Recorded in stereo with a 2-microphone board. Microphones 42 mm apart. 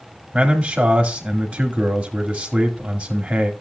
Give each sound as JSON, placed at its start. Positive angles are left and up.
{"t": 0.3, "sound": "a man speaking", "side_deg": -20, "distance_m": 1.9}